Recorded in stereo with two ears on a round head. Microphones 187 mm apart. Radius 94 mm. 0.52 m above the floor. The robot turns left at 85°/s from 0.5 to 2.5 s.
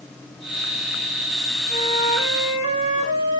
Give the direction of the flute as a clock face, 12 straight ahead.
10 o'clock.